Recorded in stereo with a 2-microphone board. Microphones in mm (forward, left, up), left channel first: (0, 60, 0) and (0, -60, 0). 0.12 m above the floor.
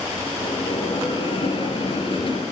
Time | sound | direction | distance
0.4 | a bell | 45° left (ahead or behind) | 3 m